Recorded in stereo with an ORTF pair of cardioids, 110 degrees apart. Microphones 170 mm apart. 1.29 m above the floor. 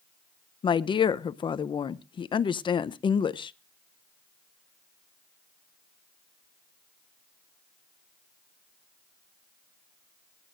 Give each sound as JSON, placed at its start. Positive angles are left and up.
{"t": 0.6, "sound": "a woman speaking", "azimuth_deg": 30, "distance_m": 0.7}